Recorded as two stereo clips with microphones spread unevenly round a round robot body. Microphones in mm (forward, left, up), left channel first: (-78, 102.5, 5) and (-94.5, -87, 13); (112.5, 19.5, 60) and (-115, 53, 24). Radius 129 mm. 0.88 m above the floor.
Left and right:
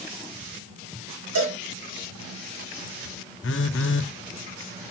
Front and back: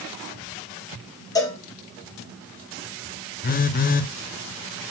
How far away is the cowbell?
About 2.5 m.